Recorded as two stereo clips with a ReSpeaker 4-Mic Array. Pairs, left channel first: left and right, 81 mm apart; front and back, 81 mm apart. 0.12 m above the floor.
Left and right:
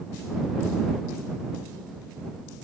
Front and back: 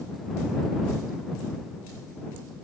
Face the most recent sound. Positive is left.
No sound to turn to.